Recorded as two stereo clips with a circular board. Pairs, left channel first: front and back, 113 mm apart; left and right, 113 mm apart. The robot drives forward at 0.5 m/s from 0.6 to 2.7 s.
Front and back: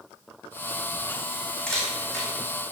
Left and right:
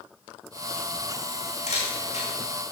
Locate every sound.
1.7 s a camera shutter: 80° left, 4 m; by 2.3 s 85° left, 4 m